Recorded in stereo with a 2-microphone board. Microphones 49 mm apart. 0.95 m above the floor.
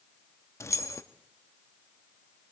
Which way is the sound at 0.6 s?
80° left.